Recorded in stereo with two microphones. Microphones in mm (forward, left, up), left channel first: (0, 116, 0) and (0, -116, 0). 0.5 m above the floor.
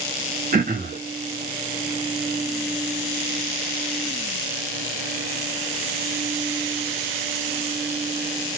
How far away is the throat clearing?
About 1.3 m.